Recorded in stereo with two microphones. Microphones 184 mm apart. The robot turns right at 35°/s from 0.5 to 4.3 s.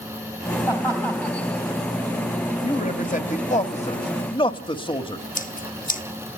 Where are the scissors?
45° left (ahead or behind), 2.5 m.